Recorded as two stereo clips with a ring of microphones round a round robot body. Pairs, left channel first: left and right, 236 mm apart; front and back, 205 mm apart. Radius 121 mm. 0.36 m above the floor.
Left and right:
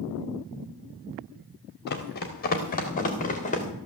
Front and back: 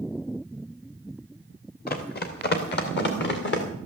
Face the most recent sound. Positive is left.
turn(degrees=30)